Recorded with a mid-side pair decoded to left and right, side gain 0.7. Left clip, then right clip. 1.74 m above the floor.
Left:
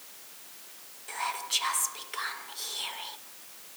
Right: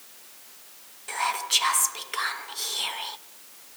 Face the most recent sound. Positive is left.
turn(degrees=-30)